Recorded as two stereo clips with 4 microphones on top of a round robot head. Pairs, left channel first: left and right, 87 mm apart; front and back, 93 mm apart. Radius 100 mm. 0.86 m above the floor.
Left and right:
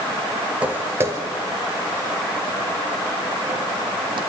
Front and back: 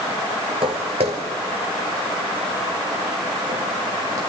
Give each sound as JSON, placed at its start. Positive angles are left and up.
{"t": 0.6, "sound": "footsteps", "azimuth_deg": -160, "distance_m": 1.0}